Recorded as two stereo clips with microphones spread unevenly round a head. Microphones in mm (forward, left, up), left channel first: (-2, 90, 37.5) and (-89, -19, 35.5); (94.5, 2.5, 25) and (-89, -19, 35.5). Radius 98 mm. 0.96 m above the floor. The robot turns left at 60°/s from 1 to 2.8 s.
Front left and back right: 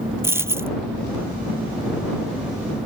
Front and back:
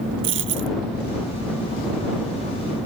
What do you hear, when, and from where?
0.2 s a dropped coin: 160° left